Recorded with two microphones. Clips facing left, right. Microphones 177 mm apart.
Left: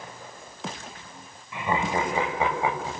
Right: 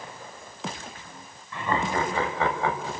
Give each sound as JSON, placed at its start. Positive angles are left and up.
{"t": 1.5, "sound": "laughter", "side_deg": 15, "distance_m": 6.0}